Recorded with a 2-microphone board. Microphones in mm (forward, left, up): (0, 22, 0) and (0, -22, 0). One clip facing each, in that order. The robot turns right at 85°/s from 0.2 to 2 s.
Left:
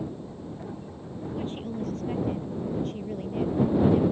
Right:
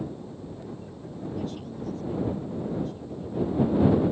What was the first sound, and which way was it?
A woman speaking, 30° left.